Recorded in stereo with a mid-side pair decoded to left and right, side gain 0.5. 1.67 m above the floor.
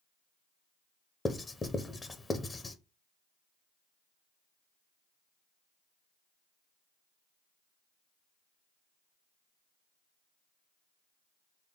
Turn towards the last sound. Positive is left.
turn(degrees=30)